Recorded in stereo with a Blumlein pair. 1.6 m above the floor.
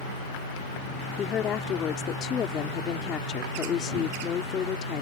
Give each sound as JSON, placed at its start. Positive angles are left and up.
{"t": 1.2, "sound": "a woman speaking", "azimuth_deg": 25}